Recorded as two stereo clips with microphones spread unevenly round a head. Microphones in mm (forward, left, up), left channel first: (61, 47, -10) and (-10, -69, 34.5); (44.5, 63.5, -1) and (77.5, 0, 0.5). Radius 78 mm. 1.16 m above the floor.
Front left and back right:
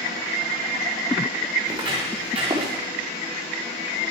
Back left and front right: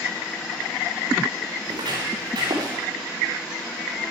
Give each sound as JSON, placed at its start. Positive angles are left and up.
{"t": 1.6, "sound": "footsteps", "azimuth_deg": -70, "distance_m": 7.0}